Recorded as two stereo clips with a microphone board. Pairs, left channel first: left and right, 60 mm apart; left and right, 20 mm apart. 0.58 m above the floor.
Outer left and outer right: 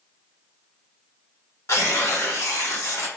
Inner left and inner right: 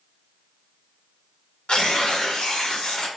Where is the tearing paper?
60° left (ahead or behind), 1.0 m.